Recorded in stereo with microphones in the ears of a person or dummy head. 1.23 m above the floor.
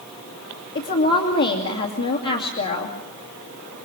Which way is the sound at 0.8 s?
55° left (ahead or behind).